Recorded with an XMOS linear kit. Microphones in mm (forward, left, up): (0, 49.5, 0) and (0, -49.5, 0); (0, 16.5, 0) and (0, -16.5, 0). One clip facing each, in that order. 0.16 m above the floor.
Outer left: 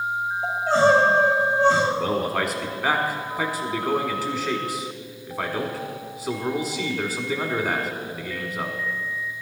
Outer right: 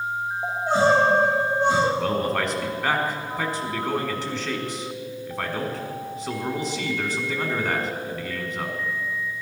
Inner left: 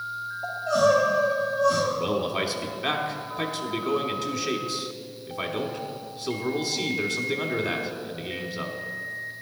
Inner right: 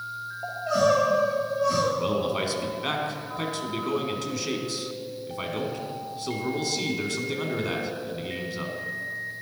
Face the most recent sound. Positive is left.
turn(degrees=5)  # may be behind; listen again after turning